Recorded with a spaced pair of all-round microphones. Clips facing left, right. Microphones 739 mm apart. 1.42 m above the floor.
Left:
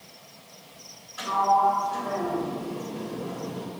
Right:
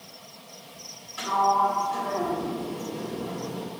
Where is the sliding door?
55° right (ahead or behind), 1.9 m.